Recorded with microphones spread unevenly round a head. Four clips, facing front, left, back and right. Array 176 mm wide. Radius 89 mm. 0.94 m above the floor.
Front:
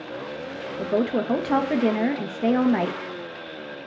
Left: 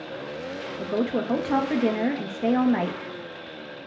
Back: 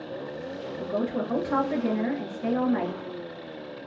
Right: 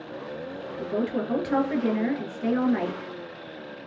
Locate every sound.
0.8 s a woman speaking: 20° left, 0.6 m